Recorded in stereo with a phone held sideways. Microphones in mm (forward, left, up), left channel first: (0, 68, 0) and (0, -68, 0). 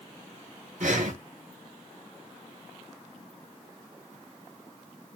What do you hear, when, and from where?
0.8 s breathing: 70° right (ahead or behind), 3.5 m